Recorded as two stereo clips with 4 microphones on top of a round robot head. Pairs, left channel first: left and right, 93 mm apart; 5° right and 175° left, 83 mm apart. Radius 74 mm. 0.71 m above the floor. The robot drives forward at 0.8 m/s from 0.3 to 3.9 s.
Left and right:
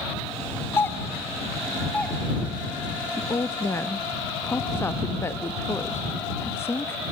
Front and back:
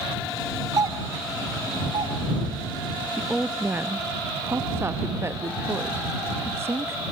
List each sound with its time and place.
0.8 s a doorbell: 145° left, 1.2 m; by 2.2 s 165° left, 2 m
3.2 s a woman speaking: 75° left, 0.9 m; by 7.0 s 140° left, 1.0 m